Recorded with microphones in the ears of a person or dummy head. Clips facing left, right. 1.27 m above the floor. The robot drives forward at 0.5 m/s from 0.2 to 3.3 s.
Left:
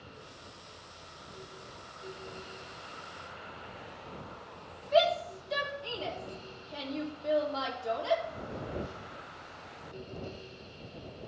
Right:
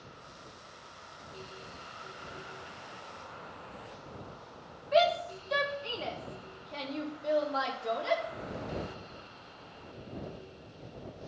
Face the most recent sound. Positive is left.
turn(degrees=-20)  # may be behind; listen again after turning